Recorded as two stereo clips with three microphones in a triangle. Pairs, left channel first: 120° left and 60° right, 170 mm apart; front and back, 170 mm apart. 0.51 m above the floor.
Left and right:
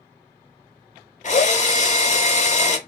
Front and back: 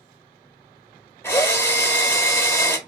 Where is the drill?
75° left, 0.7 m.